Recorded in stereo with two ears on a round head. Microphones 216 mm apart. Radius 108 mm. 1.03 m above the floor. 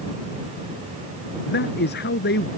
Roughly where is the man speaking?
Left.